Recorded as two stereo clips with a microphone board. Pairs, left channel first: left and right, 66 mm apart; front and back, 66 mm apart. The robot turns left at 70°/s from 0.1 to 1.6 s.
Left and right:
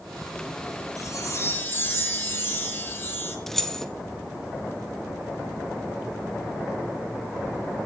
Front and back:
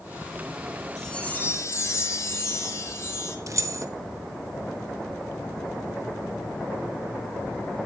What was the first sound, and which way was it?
A chime, 85° left.